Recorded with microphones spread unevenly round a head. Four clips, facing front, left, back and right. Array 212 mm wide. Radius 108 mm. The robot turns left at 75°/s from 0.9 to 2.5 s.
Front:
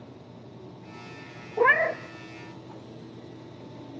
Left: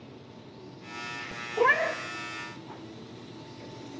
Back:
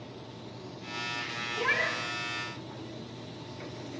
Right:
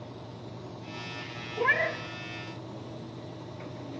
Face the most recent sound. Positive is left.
turn(degrees=-35)